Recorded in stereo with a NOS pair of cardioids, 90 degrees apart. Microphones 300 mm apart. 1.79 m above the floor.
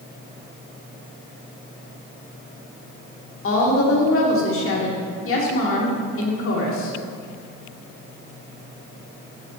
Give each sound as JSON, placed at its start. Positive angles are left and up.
{"t": 3.4, "sound": "a woman speaking", "azimuth_deg": 45, "distance_m": 2.0}